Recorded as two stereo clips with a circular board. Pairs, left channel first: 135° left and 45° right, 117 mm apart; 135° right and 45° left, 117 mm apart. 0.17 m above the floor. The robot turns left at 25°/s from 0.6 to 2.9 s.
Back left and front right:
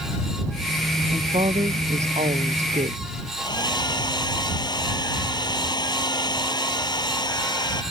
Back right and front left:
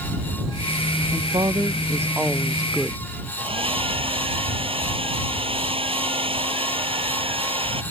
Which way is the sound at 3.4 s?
85° left.